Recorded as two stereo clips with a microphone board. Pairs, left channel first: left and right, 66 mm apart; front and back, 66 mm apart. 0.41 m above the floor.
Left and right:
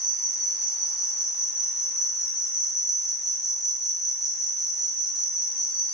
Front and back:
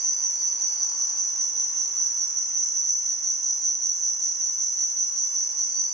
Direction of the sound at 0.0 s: 5° right.